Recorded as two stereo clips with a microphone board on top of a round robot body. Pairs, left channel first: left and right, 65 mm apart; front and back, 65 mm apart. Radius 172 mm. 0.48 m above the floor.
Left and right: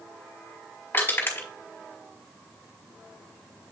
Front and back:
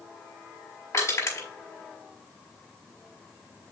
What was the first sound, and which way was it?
Crushing, 35° left.